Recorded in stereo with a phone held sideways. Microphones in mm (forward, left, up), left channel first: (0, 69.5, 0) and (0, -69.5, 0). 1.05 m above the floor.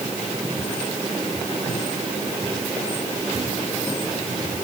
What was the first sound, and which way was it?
Only background noise.